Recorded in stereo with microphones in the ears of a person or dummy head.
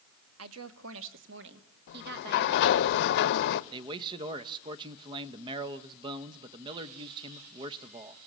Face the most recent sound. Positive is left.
turn(degrees=-30)  # may be behind; listen again after turning